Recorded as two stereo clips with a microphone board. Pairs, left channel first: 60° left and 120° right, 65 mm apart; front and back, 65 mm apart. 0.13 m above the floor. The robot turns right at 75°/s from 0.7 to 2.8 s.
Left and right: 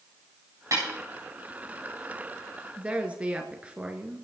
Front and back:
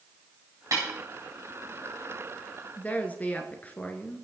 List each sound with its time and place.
0.7 s a snare drum: 150° right, 8.5 m; by 0.8 s 140° right, 8.5 m
2.8 s a woman speaking: 60° right, 2 m; by 4.2 s 55° right, 2 m